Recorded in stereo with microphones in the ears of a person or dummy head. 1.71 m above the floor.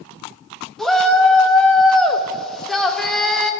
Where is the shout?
Centre (ahead or behind), 0.7 m.